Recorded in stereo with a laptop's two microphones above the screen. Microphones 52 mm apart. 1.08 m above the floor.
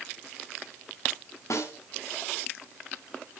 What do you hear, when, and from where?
1.5 s a snare drum: 75° left (ahead or behind), 3 m